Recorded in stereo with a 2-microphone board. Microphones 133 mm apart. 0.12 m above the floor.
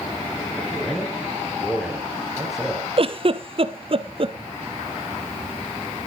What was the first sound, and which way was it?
A man speaking, centre (ahead or behind).